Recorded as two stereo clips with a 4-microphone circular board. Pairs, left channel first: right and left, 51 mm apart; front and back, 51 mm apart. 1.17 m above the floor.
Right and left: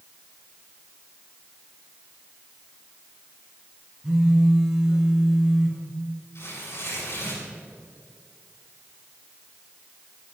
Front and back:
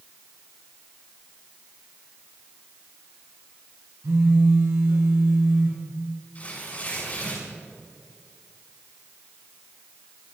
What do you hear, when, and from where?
4.0 s a phone buzzing: 175° left, 4 m
6.3 s tearing paper: 55° right, 7 m